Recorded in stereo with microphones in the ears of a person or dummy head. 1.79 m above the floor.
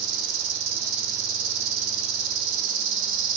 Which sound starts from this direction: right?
An insect, at 0.0 s.